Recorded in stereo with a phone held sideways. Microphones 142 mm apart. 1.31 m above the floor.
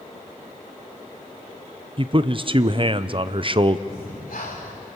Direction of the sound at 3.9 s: 80° left.